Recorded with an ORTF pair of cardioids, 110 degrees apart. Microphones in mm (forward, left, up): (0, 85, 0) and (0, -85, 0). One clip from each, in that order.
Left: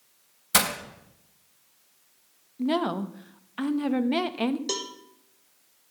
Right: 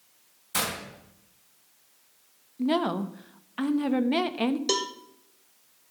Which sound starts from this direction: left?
Breaking glass, at 0.5 s.